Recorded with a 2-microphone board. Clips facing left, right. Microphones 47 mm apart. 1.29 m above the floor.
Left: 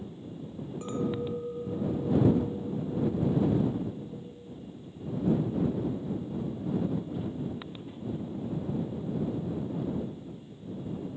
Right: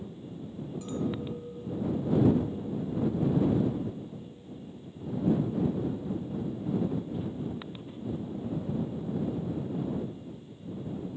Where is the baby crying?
I don't hear a baby crying.